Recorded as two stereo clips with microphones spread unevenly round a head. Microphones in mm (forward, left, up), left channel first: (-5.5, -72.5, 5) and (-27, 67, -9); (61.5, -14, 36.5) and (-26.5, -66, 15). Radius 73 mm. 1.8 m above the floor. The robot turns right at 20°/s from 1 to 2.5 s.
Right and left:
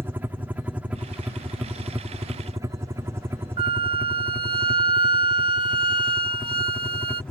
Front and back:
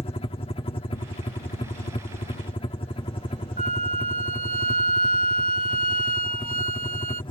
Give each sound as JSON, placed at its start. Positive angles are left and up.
{"t": 0.0, "sound": "a helicopter", "azimuth_deg": 30}
{"t": 3.6, "sound": "a flute", "azimuth_deg": 155}